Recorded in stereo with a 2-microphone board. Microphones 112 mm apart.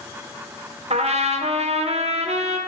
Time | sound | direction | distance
0.9 | a trumpet | 70° right (ahead or behind) | 0.6 m